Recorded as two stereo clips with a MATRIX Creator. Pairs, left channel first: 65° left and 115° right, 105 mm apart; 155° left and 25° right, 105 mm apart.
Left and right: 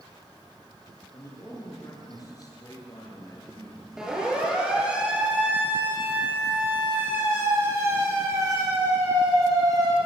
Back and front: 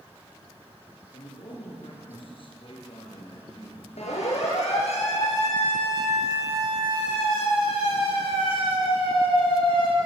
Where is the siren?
160° left, 9.5 m; by 10.0 s 165° right, 8 m.